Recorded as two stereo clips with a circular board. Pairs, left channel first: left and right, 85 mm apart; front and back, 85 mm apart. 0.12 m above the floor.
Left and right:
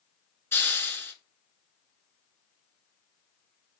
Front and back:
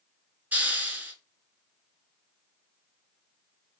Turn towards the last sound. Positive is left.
turn(degrees=130)